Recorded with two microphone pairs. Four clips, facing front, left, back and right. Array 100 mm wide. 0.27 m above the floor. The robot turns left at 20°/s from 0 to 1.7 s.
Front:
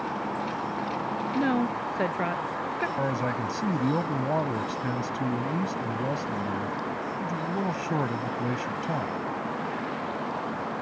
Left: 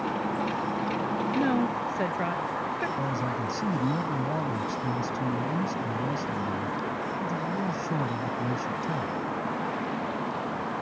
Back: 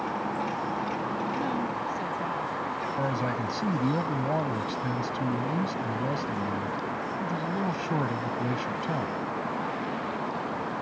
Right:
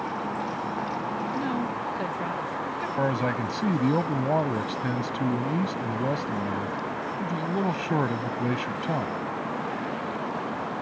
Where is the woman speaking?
25° left; by 2.9 s 20° left.